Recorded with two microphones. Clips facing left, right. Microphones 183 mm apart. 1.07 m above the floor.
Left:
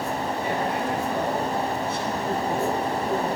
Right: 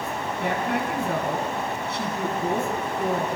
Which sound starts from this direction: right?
A woman speaking, at 0.4 s.